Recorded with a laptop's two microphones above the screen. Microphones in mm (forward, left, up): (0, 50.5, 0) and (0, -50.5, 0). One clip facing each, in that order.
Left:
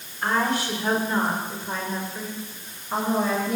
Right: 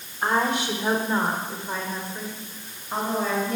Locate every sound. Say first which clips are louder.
0.2 s a woman speaking: right 1 dB; 25° right (ahead or behind), 3.5 m; by 3.6 s 10° left (ahead or behind), 6 m